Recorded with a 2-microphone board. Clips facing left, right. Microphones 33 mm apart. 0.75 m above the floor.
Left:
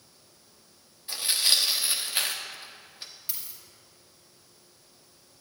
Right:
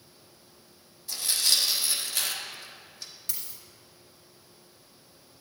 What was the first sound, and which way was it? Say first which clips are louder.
Tearing paper: left 2 dB; 30° left (ahead or behind).